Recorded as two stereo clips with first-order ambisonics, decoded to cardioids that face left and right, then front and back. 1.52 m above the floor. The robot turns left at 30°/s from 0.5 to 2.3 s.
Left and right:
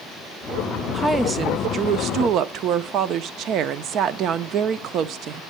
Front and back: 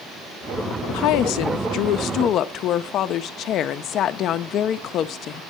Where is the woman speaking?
5° right, 0.6 m; by 5.4 s 45° right, 0.6 m.